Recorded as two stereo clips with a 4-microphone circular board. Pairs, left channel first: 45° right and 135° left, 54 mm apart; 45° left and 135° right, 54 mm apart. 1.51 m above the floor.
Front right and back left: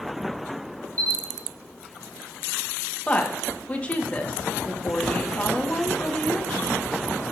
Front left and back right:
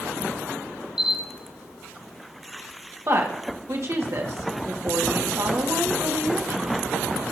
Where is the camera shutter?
145° left, 1.2 m.